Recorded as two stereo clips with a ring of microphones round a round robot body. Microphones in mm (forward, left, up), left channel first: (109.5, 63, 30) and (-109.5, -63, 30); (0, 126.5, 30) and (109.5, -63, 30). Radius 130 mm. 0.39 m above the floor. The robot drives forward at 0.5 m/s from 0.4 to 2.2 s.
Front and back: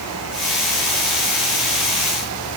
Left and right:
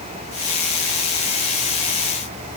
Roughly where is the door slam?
I don't hear a door slam.